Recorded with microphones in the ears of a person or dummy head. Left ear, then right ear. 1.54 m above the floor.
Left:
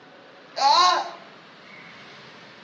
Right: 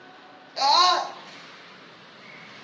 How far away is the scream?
About 0.7 m.